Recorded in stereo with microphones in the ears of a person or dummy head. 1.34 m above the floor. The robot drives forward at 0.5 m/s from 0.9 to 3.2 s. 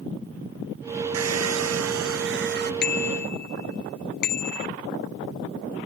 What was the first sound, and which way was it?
A hair dryer, 80° right.